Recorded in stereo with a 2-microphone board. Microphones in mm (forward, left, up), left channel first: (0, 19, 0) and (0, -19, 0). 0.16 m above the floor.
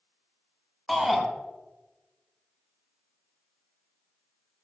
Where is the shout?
Centre (ahead or behind), 1.7 m.